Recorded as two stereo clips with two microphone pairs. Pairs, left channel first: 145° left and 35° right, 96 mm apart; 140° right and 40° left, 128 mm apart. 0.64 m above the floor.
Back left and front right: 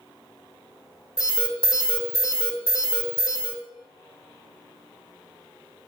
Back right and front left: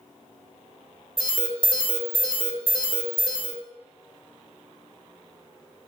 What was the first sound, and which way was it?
An alarm, 175° right.